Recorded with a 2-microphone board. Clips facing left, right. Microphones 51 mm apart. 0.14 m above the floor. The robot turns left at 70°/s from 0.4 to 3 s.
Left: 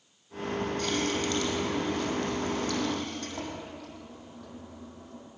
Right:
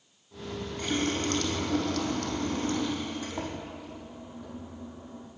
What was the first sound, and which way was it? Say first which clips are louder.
A running tap: right 4 dB; 15° right.